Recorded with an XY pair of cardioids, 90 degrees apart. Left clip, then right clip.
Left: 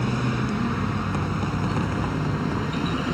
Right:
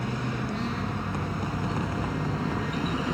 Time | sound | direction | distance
0.0 | a vehicle | 45° left | ?